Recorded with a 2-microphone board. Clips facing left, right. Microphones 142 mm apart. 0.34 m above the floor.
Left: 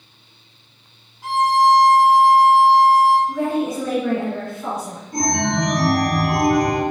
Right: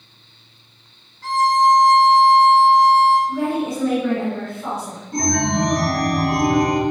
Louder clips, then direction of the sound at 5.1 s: Right 1 dB; 65° right (ahead or behind).